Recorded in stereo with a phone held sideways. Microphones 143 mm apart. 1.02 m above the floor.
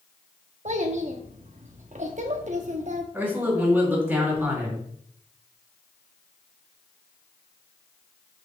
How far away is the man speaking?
About 4 m.